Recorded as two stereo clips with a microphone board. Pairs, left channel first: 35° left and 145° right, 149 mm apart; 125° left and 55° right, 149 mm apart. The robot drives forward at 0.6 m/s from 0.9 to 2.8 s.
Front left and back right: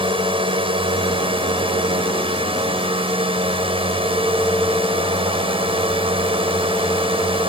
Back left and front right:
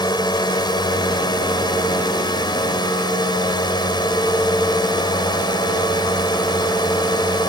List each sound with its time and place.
0.0 s a drone: 175° left